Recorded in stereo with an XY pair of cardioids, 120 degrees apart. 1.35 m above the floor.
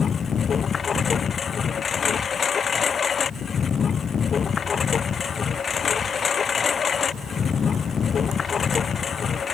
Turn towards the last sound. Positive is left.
turn(degrees=40)